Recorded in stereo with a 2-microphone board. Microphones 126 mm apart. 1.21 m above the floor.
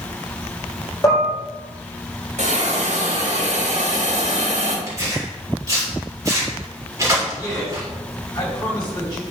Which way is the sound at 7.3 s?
30° left (ahead or behind).